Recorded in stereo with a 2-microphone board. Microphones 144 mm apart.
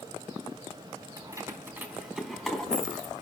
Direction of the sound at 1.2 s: 25° right (ahead or behind).